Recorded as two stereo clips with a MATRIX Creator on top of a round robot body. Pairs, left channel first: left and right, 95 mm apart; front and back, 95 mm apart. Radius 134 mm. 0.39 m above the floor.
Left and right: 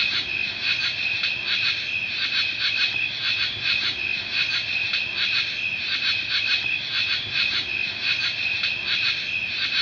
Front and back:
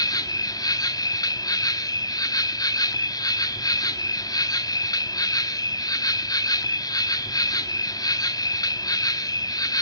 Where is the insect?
5° left, 0.9 m.